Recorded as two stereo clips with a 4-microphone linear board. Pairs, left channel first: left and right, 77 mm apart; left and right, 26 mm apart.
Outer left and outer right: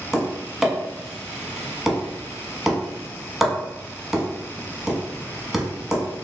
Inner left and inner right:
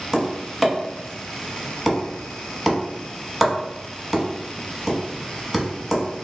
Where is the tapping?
5° right (ahead or behind), 0.9 m.